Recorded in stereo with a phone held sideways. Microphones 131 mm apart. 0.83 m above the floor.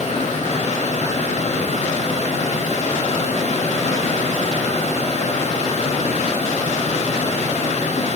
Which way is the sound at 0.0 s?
60° left (ahead or behind).